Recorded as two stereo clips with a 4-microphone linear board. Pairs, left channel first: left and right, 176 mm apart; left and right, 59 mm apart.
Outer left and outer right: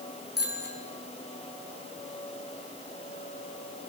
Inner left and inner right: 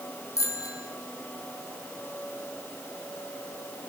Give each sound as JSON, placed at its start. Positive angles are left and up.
{"t": 0.4, "sound": "a bicycle bell", "side_deg": 65, "distance_m": 6.0}